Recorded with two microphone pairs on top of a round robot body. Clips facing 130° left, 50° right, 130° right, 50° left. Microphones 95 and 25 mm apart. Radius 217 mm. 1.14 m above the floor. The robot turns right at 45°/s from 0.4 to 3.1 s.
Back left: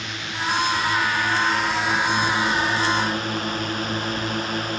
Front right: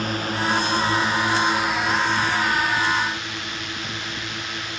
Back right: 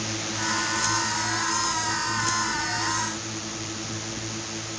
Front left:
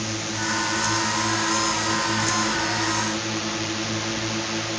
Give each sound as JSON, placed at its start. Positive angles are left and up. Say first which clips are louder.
{"t": 0.0, "sound": "a drone", "louder": "front right 5 dB, front left 2 dB", "azimuth_deg": -25}